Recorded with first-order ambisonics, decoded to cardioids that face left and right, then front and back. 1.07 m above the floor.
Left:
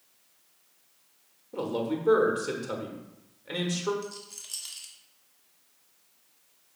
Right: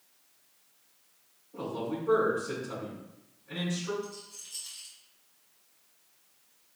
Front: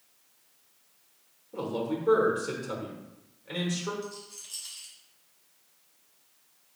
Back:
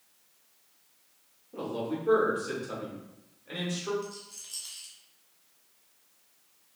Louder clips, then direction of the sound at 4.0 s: Left 3 dB, front 1 dB; 95° left.